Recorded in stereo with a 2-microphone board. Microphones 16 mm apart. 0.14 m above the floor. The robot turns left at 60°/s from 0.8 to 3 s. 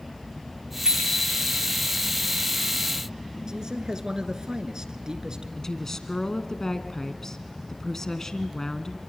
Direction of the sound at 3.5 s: 40° right (ahead or behind).